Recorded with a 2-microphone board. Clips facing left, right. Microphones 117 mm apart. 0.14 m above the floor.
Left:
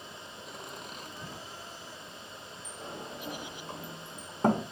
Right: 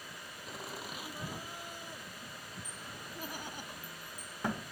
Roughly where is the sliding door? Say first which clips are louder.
Left 6 dB; left.